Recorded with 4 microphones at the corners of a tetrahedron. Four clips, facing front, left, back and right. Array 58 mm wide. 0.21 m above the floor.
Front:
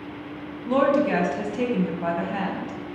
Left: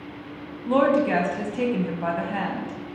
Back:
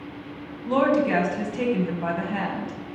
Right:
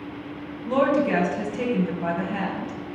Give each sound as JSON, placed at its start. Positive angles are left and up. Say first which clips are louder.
{"t": 0.7, "sound": "a woman speaking", "louder": "left 1 dB, even", "azimuth_deg": 90, "distance_m": 0.9}